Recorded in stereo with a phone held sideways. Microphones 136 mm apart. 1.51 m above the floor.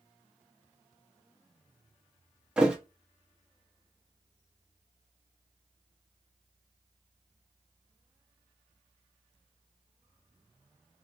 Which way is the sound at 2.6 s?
5° right (ahead or behind).